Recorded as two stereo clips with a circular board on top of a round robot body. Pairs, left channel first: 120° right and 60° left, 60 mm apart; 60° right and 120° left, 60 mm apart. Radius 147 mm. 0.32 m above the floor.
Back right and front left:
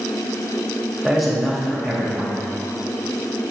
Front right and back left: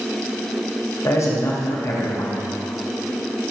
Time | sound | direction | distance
1.0 | a man speaking | 30° right | 2.5 m